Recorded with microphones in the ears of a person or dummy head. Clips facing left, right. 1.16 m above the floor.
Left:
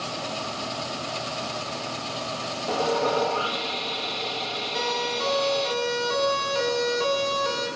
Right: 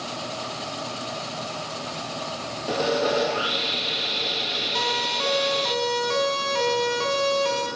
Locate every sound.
2.7 s sawing: 20° right (ahead or behind), 0.8 m
4.8 s a siren: 65° right (ahead or behind), 9 m; by 7.7 s 70° right (ahead or behind), 10.5 m